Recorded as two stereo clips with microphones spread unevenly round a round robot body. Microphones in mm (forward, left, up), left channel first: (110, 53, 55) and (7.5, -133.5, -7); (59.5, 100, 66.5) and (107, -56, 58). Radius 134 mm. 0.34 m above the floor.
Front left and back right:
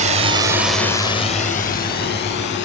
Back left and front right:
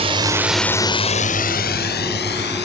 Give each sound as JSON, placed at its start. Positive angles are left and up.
{"t": 0.0, "sound": "a drone", "azimuth_deg": -110}